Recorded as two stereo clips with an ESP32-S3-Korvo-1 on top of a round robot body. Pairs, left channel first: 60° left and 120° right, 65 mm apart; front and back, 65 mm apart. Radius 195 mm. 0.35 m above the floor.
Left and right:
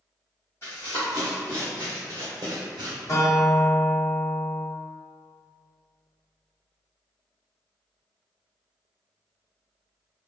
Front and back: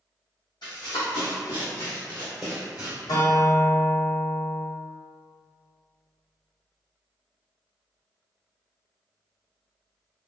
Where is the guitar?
20° left, 1.1 m.